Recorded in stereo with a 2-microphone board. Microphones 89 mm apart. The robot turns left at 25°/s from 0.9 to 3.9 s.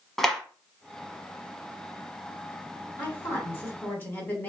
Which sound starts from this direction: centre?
A clap, at 0.2 s.